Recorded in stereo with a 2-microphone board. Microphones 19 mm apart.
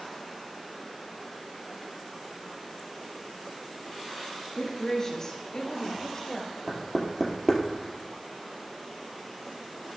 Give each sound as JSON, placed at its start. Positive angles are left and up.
{"t": 4.5, "sound": "a woman speaking", "side_deg": 25, "distance_m": 1.8}
{"t": 6.7, "sound": "knocking", "side_deg": -10, "distance_m": 2.5}